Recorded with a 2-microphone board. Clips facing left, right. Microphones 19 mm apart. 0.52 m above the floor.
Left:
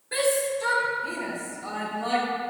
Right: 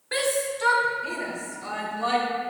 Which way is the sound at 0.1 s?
40° right (ahead or behind).